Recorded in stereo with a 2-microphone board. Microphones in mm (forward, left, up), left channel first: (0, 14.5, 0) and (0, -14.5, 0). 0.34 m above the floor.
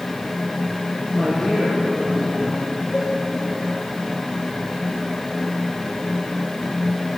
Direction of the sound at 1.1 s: 20° left (ahead or behind).